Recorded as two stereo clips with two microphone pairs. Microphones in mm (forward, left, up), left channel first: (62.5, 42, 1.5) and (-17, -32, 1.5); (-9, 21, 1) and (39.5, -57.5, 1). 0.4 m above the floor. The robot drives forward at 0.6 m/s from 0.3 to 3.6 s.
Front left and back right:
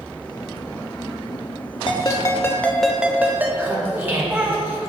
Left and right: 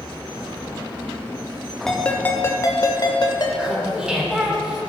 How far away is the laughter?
About 1.2 m.